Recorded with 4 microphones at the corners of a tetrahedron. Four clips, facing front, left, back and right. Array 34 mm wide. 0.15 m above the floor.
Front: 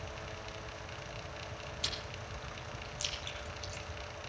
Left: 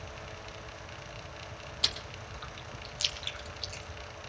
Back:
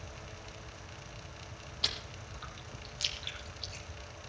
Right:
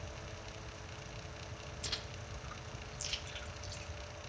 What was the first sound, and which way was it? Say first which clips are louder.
Chewing: left 10 dB, back 5 dB; 110° left.